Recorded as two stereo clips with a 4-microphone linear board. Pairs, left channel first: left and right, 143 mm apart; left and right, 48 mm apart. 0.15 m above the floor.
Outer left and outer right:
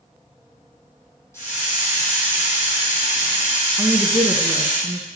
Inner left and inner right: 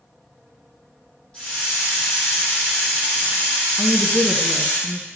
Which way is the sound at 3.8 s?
15° right (ahead or behind).